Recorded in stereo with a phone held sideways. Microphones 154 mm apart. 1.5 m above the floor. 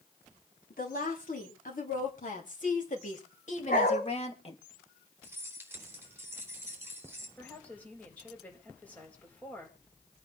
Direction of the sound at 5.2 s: 15° right (ahead or behind).